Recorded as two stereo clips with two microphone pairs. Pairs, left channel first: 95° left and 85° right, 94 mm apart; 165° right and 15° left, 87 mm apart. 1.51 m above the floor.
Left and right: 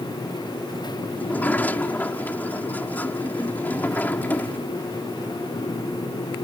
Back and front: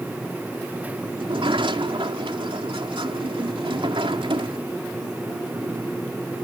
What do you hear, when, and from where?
1.2 s a sliding door: 25° left